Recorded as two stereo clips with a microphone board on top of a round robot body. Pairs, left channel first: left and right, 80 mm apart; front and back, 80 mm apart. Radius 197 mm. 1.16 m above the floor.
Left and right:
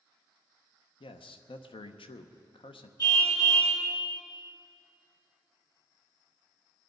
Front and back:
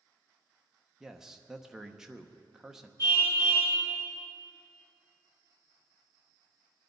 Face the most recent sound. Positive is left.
turn(degrees=50)